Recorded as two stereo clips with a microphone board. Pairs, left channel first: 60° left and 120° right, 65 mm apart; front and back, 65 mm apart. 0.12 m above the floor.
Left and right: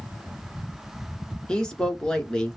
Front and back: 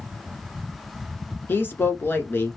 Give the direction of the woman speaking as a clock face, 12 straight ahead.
12 o'clock.